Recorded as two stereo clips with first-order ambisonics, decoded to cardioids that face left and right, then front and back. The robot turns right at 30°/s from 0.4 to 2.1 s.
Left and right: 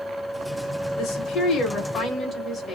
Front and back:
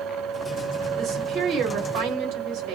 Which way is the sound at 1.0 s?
120° left.